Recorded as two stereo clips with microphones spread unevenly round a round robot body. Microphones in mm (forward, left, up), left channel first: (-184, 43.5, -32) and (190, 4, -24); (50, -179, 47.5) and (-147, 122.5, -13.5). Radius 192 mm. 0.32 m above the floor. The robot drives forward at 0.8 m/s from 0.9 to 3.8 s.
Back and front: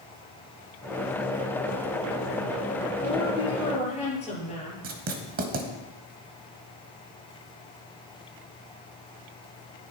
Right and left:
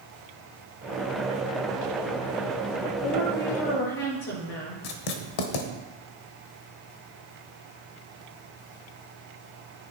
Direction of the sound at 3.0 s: 105° right.